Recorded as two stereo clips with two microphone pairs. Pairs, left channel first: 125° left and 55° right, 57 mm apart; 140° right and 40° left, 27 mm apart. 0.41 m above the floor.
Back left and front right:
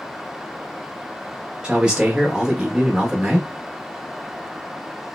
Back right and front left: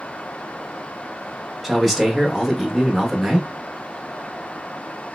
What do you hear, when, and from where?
1.6 s a man speaking: 15° right, 0.8 m